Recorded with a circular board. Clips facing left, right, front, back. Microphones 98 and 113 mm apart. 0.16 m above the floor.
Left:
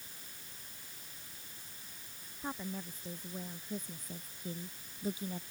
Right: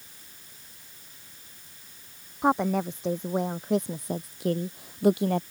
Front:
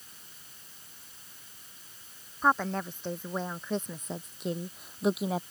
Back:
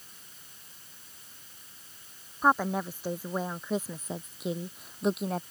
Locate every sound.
2.4 s a woman speaking: 100° right; by 5.4 s 85° right